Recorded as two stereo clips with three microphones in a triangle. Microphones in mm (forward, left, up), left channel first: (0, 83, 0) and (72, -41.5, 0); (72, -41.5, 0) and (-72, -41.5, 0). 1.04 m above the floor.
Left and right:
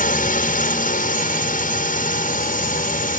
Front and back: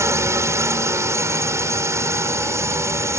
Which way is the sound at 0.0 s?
110° left.